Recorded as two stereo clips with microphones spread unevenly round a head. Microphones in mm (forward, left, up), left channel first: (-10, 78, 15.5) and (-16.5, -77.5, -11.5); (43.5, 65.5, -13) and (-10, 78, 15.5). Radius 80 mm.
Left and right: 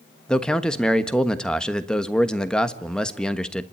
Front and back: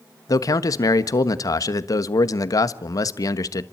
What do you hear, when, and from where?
0.3 s a man speaking: 5° left, 1.3 m